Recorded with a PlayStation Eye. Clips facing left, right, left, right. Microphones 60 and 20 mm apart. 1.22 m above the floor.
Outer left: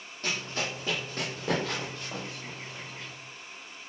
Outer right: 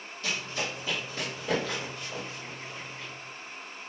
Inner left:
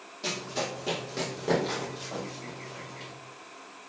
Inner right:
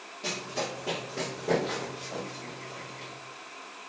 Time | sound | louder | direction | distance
0.2 | running footsteps | even, inner left 1 dB | 40° left (ahead or behind) | 1.8 m